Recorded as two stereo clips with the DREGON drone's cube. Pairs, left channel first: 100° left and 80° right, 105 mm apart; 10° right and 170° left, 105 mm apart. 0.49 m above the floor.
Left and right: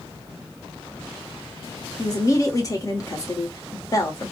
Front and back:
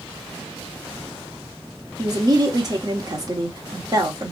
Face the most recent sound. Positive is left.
turn(degrees=140)